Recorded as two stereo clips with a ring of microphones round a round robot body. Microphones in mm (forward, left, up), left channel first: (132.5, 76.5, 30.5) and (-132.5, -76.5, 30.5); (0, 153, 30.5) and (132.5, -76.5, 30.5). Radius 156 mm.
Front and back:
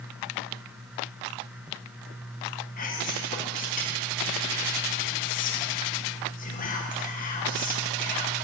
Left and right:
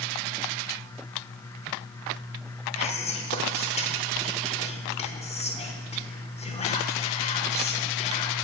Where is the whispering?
70° left, 0.9 m.